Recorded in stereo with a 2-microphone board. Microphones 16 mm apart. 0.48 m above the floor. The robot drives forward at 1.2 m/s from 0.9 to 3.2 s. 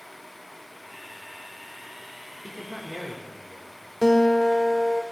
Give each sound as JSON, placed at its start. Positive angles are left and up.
{"t": 2.4, "sound": "a man speaking", "side_deg": -20, "distance_m": 1.1}
{"t": 4.0, "sound": "a guitar", "side_deg": 10, "distance_m": 0.8}